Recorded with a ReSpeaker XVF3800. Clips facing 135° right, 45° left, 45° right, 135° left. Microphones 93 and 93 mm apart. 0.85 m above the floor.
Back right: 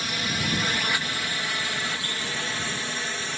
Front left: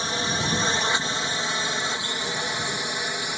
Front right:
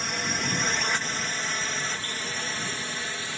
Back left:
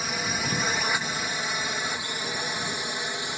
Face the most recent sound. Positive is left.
turn(degrees=95)